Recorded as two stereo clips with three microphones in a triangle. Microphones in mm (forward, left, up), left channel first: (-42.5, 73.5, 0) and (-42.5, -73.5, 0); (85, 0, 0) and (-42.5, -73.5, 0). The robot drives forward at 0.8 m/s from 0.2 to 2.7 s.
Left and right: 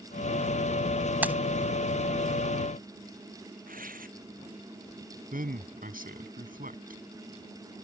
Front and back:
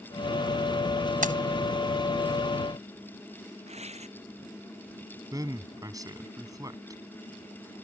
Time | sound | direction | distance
1.2 | keys jangling | 170° right | ?
3.7 | tearing paper | 110° right | ?
5.3 | a man speaking | 85° right | ?